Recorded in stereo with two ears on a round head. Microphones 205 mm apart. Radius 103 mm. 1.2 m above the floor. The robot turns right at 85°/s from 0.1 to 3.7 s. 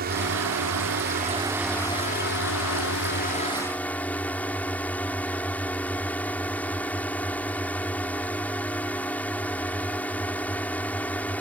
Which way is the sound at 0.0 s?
135° right.